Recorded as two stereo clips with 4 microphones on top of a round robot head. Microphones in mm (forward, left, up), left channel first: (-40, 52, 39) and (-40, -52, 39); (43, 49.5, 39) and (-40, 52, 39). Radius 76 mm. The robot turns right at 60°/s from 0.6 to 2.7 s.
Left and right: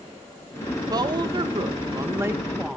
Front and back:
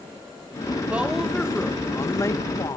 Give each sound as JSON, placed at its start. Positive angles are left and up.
{"t": 0.9, "sound": "a woman speaking", "azimuth_deg": -115, "distance_m": 1.0}